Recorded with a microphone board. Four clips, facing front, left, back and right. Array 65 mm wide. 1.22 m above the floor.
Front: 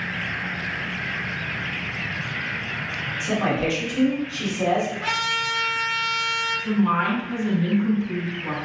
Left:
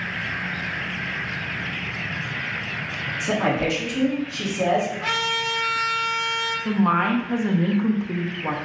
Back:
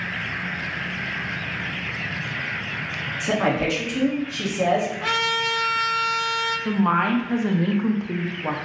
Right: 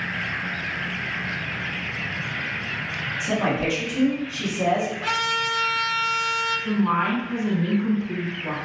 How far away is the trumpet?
About 1.9 m.